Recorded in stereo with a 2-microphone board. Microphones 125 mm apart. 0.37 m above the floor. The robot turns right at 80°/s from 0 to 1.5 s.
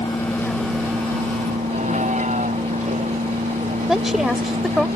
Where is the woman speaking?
Centre (ahead or behind).